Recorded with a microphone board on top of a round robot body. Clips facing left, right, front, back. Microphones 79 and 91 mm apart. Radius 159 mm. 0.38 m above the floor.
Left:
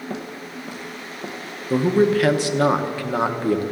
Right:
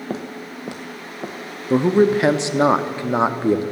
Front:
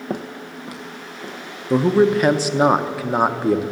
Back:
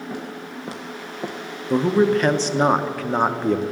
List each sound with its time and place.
0.1 s footsteps: 35° right, 0.6 m; by 1.4 s 145° right, 1.3 m
1.7 s a man speaking: 70° right, 0.8 m